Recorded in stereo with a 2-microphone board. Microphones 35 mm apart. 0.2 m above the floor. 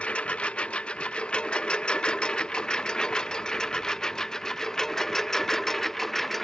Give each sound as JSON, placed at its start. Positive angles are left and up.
{"t": 0.0, "sound": "a lawn mower", "side_deg": 35}